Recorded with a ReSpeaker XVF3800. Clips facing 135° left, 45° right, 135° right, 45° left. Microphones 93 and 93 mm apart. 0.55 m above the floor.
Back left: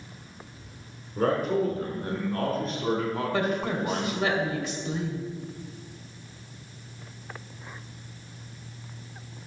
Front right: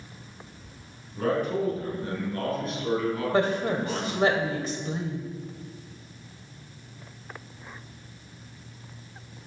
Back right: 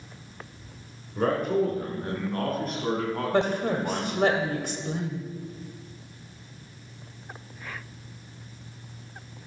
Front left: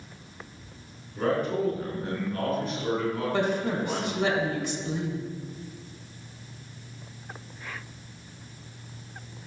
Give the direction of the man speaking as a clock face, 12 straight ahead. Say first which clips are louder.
Back left 2 dB, back right 2 dB; 6 o'clock.